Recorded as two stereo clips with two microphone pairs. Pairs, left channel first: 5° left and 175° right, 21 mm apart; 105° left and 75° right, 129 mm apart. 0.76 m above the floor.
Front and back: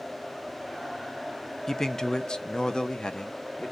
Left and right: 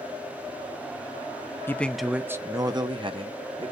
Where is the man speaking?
50° left, 0.5 m; by 3.7 s 40° right, 1.1 m.